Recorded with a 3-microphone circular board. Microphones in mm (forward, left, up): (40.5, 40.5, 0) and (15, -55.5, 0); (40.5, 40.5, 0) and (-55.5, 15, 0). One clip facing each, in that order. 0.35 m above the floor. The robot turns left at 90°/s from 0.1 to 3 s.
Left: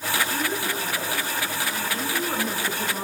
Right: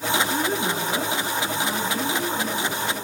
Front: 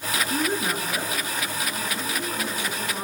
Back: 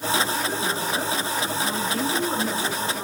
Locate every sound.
0.3 s a woman speaking: 30° right, 4.5 m; by 3.0 s 85° left, 4.5 m